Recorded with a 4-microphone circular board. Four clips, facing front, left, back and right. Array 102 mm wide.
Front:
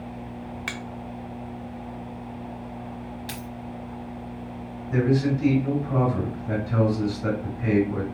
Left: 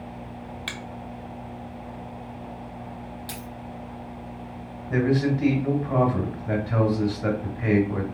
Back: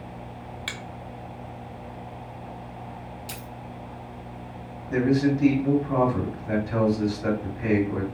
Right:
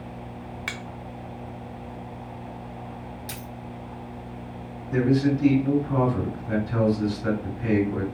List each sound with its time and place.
0.7 s a finger snap: 45° right, 0.7 m
3.3 s a dropped coin: 10° right, 1.0 m
4.9 s a man speaking: 110° left, 2.5 m